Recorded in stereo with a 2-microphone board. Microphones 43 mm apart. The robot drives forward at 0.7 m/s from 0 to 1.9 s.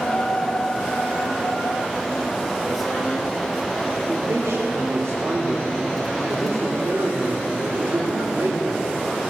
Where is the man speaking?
75° right (ahead or behind), 2.5 m.